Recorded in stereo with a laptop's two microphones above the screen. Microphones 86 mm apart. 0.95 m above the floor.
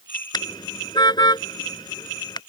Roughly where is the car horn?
Left.